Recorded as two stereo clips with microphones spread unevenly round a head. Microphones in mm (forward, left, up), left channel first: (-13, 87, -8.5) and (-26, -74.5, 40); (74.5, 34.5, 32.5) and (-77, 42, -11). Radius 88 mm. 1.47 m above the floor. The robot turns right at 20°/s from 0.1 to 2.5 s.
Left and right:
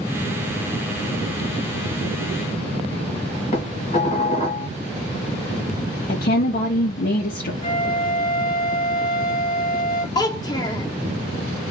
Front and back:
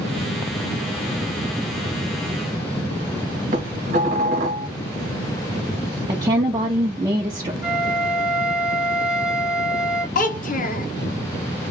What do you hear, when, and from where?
3.5 s dishes clattering: 140° left, 1.3 m
6.1 s a woman speaking: 115° left, 0.7 m
7.6 s a flute: 95° left, 1.0 m
10.2 s a child speaking: 10° left, 0.5 m